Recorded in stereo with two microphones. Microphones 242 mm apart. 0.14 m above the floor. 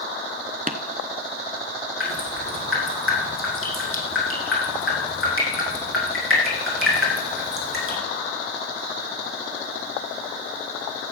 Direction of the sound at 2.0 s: 60° left (ahead or behind).